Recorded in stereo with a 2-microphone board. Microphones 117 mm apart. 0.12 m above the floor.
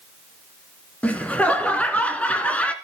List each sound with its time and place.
1.0 s laughter: 10° left (ahead or behind), 1.2 m